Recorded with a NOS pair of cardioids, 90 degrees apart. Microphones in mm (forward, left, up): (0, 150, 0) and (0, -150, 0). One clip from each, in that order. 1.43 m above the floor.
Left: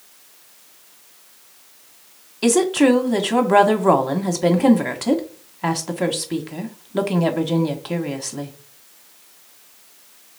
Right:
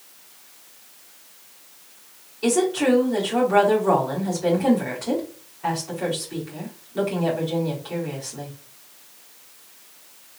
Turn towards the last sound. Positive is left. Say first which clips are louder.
# left 4 dB
turn(degrees=65)